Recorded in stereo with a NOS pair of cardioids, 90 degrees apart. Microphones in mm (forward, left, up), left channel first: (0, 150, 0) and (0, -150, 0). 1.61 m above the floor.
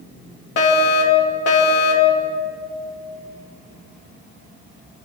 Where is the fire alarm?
55° left, 5.5 m.